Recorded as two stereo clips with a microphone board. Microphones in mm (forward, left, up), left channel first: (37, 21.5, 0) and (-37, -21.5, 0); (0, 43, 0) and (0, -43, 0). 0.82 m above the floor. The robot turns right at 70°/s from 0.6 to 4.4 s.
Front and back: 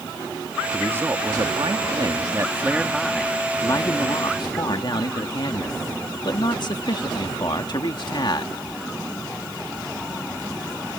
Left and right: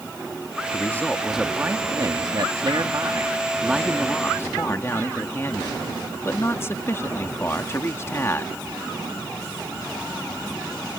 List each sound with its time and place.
0.7 s a man speaking: 140° left; by 8.6 s 35° left